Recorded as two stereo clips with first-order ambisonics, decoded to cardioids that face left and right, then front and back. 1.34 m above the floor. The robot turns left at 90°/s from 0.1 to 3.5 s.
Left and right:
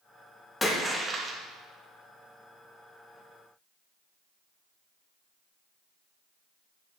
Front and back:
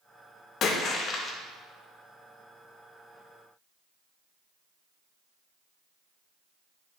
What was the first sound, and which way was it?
A splash, 15° left.